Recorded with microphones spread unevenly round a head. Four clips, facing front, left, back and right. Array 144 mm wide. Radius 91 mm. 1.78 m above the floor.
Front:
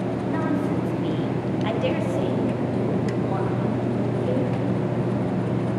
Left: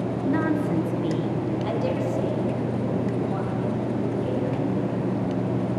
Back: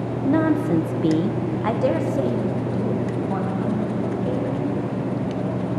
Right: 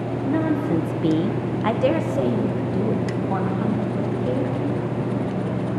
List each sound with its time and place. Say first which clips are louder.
0.2 s a woman speaking: right 2 dB, back 7 dB; 160° left, 1.2 m; by 5.0 s 90° right, 4 m